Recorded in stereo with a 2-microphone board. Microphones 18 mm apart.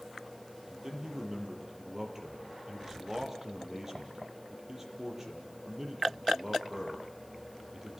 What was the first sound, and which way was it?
A man speaking, 20° right (ahead or behind).